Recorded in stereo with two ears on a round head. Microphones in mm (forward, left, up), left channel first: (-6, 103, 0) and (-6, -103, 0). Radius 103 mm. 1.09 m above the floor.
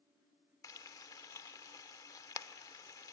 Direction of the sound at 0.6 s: 15° left (ahead or behind).